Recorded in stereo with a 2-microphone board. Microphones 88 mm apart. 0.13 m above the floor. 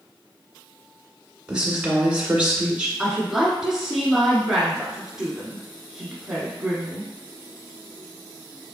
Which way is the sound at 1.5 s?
10° right (ahead or behind).